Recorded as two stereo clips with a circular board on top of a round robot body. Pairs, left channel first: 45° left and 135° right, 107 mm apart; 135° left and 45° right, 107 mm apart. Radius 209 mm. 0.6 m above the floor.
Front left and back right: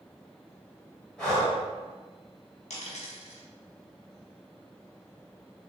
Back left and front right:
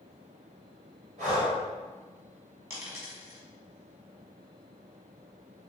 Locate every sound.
1.2 s breathing: 40° right, 1.6 m
2.7 s a dropped coin: 30° left, 1.2 m